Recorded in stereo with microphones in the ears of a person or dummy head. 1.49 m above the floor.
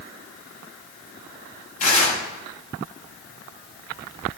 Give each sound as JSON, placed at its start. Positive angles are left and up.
{"t": 1.8, "sound": "tearing paper", "side_deg": 40, "distance_m": 6.0}